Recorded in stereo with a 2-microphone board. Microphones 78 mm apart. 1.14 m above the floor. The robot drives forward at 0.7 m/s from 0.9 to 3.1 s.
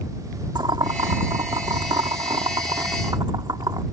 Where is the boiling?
80° right; by 3.8 s 60° right (ahead or behind).